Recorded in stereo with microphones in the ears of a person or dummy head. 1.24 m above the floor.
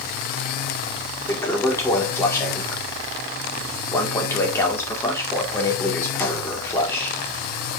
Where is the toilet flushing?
15° left (ahead or behind), 2 m.